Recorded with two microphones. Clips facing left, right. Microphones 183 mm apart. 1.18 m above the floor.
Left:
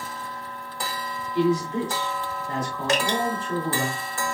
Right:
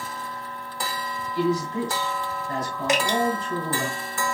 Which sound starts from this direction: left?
A man speaking, at 1.4 s.